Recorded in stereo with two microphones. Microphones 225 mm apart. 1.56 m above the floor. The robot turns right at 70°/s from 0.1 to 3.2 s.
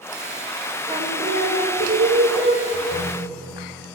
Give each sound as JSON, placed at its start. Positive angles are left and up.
{"t": 0.9, "sound": "singing", "azimuth_deg": -160, "distance_m": 2.0}
{"t": 2.7, "sound": "a ringtone", "azimuth_deg": 105, "distance_m": 2.5}